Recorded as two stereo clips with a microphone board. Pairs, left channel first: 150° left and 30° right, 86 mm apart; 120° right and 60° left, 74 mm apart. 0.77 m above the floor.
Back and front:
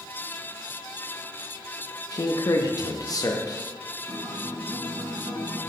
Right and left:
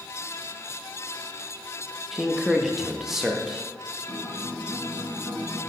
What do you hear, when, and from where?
2.1 s a man speaking: 145° left, 0.5 m
4.1 s a guitar: 30° right, 2.5 m